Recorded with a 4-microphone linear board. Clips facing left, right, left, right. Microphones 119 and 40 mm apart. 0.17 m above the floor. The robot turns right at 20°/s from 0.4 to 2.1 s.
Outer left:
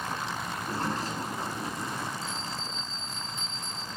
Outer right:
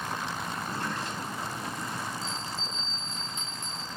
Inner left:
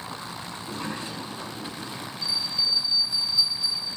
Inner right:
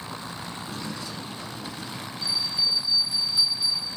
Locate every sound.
0.6 s a sliding door: 115° left, 1.3 m; by 2.1 s 145° left, 1.3 m
2.2 s a bell: 80° right, 3.5 m